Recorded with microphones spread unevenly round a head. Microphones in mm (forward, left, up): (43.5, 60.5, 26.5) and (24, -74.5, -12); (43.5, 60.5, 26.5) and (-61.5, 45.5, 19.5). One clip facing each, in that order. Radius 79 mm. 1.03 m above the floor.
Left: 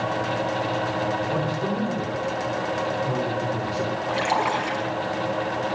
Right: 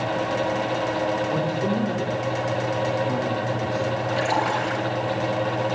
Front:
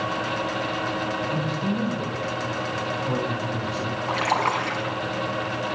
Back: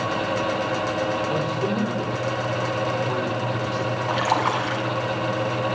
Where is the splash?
115° left, 5.5 m.